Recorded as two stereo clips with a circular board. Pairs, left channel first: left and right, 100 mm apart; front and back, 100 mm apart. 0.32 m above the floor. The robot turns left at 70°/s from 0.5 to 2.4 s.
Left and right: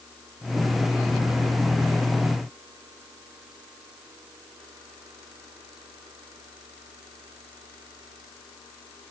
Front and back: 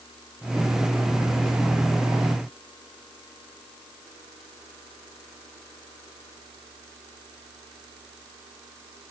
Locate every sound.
Only background noise.